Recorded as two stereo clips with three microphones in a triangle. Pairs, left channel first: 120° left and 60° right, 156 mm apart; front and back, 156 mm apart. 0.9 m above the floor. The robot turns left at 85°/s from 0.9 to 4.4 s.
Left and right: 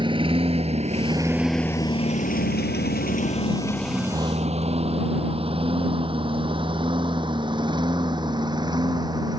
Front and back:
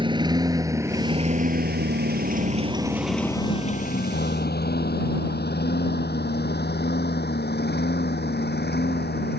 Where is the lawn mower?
120° right; by 9.4 s 5° left.